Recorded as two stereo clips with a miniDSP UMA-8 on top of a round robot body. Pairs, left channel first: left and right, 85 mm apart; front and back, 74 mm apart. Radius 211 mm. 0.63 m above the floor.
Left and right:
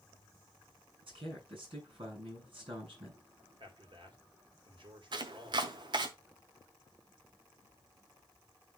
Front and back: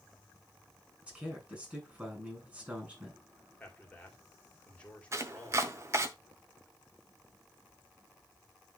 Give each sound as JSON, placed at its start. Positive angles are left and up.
{"t": 1.0, "sound": "a man speaking", "azimuth_deg": -110, "distance_m": 6.0}
{"t": 3.6, "sound": "a man speaking", "azimuth_deg": -75, "distance_m": 2.5}
{"t": 5.1, "sound": "chopping", "azimuth_deg": -125, "distance_m": 0.6}